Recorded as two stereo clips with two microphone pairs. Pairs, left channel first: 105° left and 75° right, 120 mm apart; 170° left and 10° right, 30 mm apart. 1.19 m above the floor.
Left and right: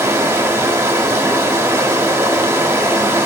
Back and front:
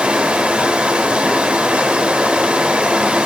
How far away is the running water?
About 0.8 m.